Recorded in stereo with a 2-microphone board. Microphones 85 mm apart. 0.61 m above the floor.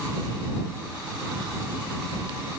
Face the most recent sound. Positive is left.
No sound to turn to.